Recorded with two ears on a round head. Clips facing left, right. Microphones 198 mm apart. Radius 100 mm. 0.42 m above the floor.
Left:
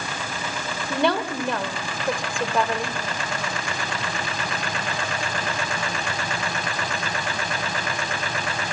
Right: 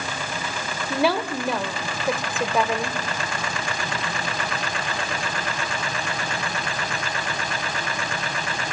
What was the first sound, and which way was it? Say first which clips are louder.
A woman speaking: even; 5° right (ahead or behind).